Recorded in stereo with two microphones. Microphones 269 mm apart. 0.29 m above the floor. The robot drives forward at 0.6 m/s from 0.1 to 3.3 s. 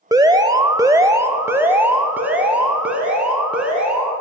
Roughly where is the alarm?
Centre.